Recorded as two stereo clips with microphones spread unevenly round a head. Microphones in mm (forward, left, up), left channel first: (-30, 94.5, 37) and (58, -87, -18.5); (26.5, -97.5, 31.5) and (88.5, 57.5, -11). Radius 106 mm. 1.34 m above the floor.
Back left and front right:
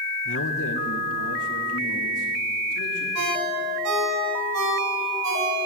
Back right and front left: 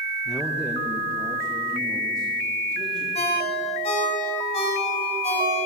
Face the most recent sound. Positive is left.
turn(degrees=-65)